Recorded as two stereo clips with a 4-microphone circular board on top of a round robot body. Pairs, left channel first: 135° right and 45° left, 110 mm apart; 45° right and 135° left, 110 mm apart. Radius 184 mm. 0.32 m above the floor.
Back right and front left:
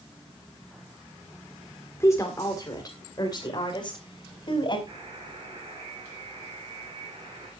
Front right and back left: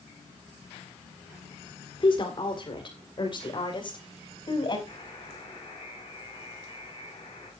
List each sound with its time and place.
2.0 s a woman speaking: 75° right, 2 m; by 4.8 s 90° right, 4.5 m
4.9 s a buzzer: straight ahead, 8 m